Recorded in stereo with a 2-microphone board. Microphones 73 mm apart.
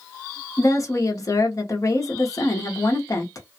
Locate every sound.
0.6 s a woman speaking: 45° left (ahead or behind), 0.8 m